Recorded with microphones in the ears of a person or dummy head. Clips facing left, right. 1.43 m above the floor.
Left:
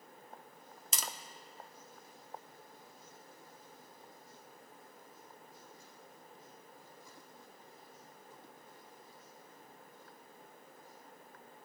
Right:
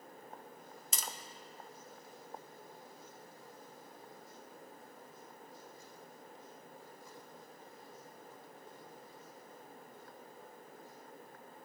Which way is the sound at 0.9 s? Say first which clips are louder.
Left 1 dB; 65° left (ahead or behind).